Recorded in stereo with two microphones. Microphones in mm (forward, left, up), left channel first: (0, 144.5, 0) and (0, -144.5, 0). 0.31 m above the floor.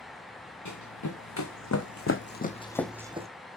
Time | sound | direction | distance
0.7 | running footsteps | 75° left (ahead or behind) | 1.6 m